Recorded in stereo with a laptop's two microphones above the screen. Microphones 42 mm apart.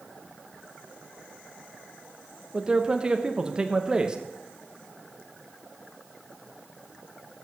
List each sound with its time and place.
2.5 s a man speaking: 20° right (ahead or behind), 0.6 m